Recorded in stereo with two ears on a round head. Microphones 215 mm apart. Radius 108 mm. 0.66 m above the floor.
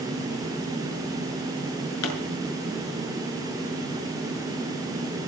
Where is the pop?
75° left (ahead or behind), 6.5 m.